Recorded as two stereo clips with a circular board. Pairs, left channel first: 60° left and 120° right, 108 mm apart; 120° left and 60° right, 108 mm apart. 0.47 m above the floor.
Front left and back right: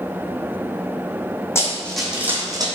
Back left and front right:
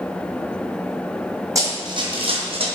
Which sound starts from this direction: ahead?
Running footsteps, at 1.6 s.